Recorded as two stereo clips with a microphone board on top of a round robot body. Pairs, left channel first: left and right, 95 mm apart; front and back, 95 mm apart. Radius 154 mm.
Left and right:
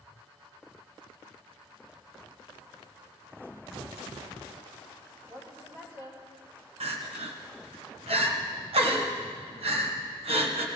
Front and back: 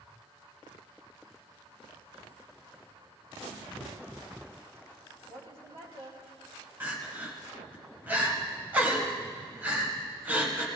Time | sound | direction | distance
5.3 | a woman speaking | 150° right | 4.5 m
6.8 | crying | 105° right | 1.7 m